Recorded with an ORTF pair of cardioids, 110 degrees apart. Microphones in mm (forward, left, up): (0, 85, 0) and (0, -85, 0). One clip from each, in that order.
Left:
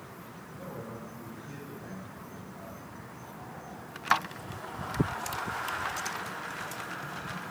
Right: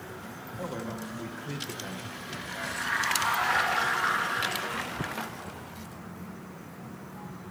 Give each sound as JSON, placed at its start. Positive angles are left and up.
{"t": 0.6, "sound": "a man speaking", "azimuth_deg": -65, "distance_m": 3.0}